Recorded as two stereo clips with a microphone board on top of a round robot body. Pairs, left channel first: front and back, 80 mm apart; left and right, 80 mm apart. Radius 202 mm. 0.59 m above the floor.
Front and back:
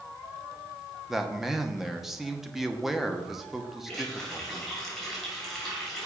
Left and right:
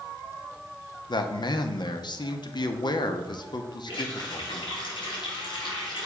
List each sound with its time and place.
1.1 s a man speaking: 95° left, 1.0 m
3.9 s a running tap: 90° left, 4 m